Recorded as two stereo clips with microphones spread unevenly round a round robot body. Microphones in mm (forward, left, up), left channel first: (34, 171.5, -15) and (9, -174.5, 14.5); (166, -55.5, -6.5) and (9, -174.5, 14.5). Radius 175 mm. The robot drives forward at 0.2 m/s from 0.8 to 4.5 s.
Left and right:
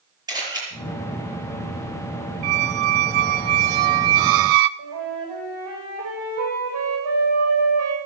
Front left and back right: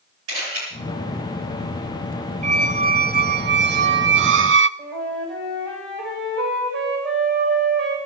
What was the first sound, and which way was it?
A camera shutter, 175° right.